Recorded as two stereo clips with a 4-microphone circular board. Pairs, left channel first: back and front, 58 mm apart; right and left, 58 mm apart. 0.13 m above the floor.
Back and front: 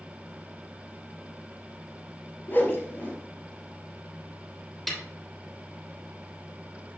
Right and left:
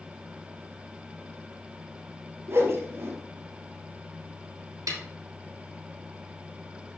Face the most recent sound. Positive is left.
turn(degrees=95)